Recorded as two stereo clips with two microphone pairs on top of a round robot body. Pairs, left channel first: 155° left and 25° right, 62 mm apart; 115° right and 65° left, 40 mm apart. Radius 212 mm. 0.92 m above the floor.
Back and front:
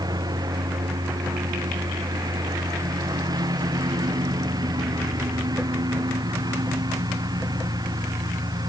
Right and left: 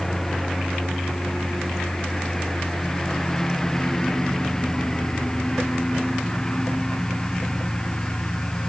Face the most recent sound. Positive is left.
turn(degrees=-40)